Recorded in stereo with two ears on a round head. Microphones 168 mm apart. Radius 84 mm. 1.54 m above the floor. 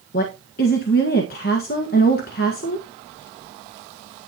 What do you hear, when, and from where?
0.1 s a woman speaking: 50° left (ahead or behind), 1.5 m